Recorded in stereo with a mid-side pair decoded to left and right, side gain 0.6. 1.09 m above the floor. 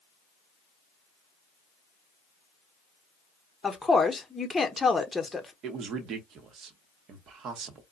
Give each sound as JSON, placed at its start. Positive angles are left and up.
{"t": 3.6, "sound": "a woman speaking", "azimuth_deg": 15, "distance_m": 0.8}
{"t": 5.6, "sound": "a man speaking", "azimuth_deg": -55, "distance_m": 0.8}